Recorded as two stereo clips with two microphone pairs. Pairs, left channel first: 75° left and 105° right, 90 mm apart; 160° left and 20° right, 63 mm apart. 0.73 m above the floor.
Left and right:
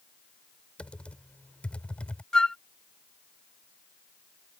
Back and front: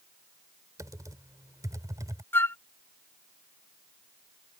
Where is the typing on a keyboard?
Straight ahead.